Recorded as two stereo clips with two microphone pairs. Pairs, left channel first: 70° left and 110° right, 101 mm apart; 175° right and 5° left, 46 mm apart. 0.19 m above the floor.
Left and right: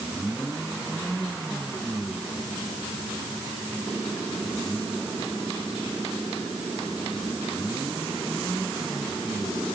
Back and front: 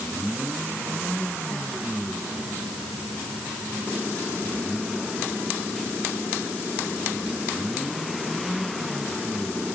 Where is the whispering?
No whispering in this recording.